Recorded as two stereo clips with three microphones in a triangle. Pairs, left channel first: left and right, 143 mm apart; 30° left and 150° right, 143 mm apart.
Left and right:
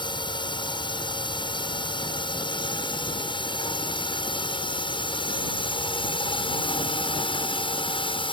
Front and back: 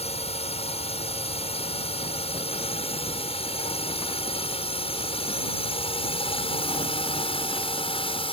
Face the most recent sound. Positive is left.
turn(degrees=55)